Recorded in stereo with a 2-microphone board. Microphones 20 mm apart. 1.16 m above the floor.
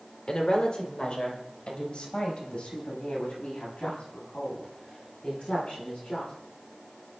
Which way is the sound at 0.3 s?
40° left (ahead or behind).